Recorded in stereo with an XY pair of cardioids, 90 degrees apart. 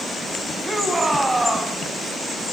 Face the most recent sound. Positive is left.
turn(degrees=-15)